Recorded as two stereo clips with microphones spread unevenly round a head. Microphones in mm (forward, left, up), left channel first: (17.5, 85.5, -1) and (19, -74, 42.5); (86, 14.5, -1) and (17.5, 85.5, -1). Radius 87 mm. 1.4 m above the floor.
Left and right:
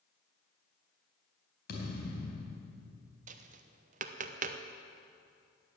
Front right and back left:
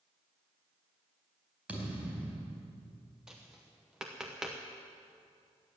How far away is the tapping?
About 0.8 m.